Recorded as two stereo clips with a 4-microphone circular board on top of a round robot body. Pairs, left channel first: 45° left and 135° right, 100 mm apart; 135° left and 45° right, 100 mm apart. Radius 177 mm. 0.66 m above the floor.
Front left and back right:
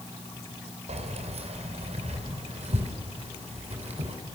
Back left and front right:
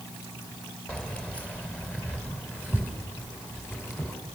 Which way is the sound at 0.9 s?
145° right.